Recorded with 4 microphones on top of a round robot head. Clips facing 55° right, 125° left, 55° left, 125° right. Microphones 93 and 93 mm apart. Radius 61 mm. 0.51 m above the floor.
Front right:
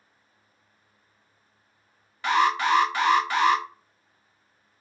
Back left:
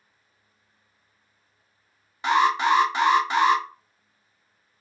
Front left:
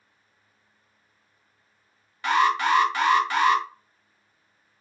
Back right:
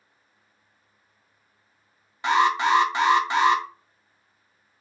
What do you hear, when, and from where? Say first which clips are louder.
2.2 s an alarm: back left 2 dB, back right 1 dB; straight behind, 1.1 m